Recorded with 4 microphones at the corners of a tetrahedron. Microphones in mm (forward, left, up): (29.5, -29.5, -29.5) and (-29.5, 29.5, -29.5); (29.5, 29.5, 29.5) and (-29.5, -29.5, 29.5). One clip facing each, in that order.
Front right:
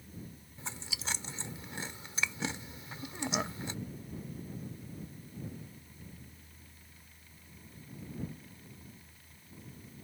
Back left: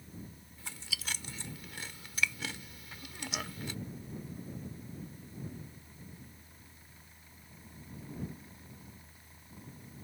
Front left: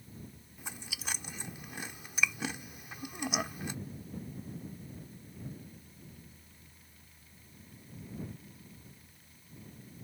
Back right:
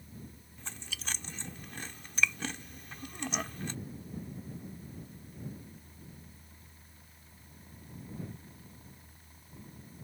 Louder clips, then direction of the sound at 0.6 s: Front right 1 dB, even; 20° right.